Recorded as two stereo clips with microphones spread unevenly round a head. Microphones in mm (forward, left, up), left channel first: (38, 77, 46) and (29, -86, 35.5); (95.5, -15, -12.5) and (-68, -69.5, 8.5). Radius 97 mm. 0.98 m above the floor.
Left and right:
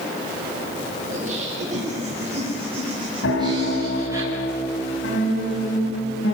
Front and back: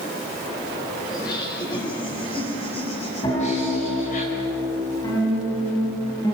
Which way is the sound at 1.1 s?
50° right.